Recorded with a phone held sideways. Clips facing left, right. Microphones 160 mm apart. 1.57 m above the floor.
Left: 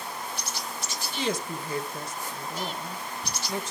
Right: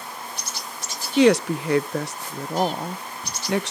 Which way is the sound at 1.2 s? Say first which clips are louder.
Right 14 dB; 80° right.